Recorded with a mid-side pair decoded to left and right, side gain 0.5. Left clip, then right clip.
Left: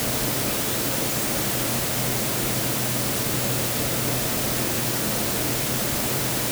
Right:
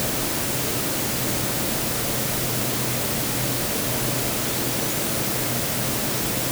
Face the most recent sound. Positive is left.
No sound to turn to.